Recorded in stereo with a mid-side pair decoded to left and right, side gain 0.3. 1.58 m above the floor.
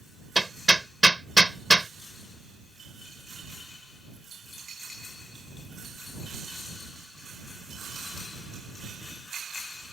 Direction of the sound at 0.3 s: 10° right.